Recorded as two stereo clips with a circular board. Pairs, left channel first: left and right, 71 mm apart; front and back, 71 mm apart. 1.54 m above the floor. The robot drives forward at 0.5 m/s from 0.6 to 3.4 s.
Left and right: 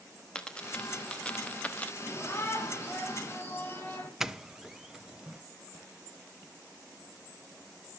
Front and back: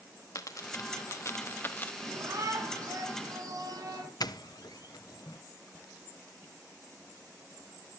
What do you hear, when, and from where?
0.3 s a dropped coin: 15° left, 1.3 m; by 1.9 s 40° left, 0.9 m
2.0 s a shout: 145° left, 4 m; by 4.1 s 150° left, 4.5 m
4.2 s a doorbell: 5° right, 0.7 m